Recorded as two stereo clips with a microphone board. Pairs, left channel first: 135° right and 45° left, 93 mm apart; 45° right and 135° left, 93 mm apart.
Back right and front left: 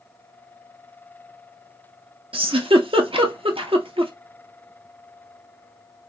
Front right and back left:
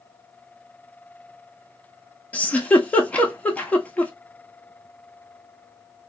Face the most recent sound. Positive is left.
turn(degrees=30)